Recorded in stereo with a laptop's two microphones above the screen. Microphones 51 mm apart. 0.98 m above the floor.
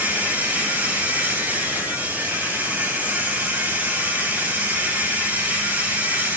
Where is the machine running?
35° right (ahead or behind), 2.5 m.